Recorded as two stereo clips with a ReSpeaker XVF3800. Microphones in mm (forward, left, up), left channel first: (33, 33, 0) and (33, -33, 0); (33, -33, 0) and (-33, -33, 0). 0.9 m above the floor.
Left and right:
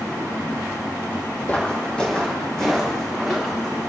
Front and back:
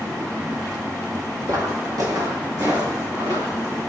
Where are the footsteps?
155° left, 2 m; by 3.8 s 175° left, 5.5 m.